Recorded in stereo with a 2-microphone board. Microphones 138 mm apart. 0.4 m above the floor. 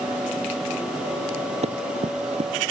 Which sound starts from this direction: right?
Running footsteps, at 1.6 s.